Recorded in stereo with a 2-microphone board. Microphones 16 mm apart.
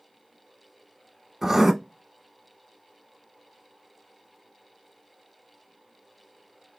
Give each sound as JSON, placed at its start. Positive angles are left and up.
{"t": 1.4, "sound": "writing", "side_deg": -25, "distance_m": 0.6}